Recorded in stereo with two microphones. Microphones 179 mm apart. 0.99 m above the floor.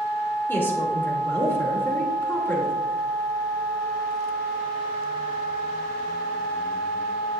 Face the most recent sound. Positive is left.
turn(degrees=10)  # may be behind; listen again after turning